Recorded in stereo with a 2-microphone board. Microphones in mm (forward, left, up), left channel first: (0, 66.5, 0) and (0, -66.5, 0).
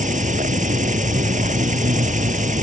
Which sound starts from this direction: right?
An insect, at 0.0 s.